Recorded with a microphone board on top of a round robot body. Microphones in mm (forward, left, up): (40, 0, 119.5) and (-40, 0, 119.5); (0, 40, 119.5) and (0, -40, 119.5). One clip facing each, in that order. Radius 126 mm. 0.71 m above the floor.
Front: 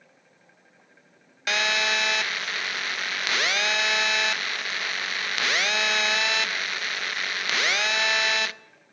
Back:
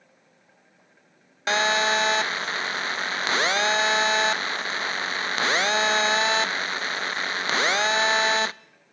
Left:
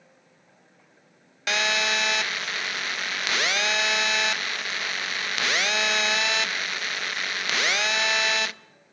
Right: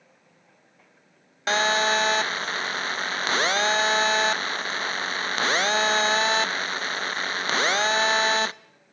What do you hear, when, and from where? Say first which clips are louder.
1.5 s a phone buzzing: back 4 dB, right 4 dB; 130° right, 0.6 m